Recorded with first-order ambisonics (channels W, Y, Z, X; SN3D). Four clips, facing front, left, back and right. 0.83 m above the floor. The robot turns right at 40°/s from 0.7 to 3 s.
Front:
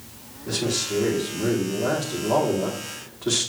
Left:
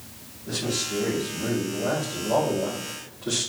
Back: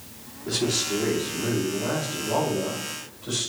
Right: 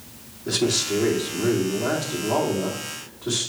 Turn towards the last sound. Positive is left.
turn(degrees=-10)